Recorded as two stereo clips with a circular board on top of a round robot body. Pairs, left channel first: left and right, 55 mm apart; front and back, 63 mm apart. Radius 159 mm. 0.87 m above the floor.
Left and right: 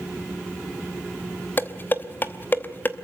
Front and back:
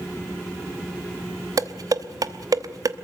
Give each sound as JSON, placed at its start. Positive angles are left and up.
{"t": 1.6, "sound": "dishes clattering", "azimuth_deg": 150, "distance_m": 1.0}